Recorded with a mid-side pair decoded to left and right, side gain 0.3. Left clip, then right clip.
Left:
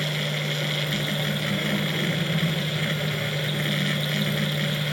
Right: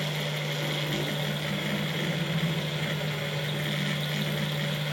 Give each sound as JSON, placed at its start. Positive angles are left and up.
{"t": 0.0, "sound": "a machine running", "azimuth_deg": 65, "distance_m": 1.5}